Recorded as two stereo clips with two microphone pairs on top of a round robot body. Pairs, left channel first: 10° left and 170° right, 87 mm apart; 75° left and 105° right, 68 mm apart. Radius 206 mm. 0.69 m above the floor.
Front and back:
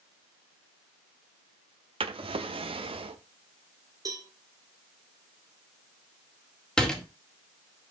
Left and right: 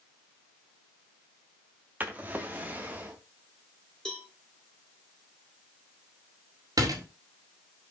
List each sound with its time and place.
2.0 s a drawer: 170° right, 0.8 m
4.0 s a cowbell: 150° left, 2 m
6.8 s a door slam: 75° right, 2 m